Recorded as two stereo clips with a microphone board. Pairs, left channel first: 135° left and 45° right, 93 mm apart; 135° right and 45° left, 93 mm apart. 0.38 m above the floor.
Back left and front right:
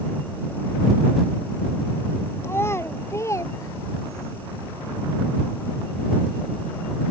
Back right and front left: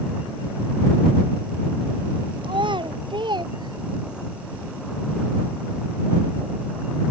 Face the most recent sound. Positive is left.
turn(degrees=90)